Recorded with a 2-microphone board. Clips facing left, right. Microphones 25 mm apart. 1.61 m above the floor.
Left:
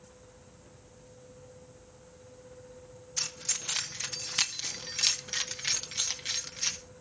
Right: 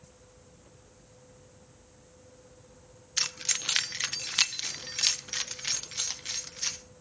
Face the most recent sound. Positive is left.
turn(degrees=10)  # may be behind; listen again after turning